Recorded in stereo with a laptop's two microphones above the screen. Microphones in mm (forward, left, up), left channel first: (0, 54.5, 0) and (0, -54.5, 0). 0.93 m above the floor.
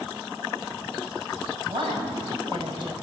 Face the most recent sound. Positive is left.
turn(degrees=-50)  # may be behind; listen again after turning